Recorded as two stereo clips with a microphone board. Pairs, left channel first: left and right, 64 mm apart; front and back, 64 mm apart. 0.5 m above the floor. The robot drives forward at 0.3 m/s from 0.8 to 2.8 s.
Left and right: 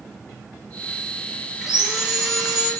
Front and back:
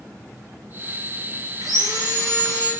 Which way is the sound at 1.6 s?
170° right.